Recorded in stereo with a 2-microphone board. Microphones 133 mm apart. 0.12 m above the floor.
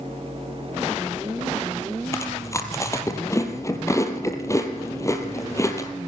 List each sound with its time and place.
2.1 s chewing: 25° left (ahead or behind), 2 m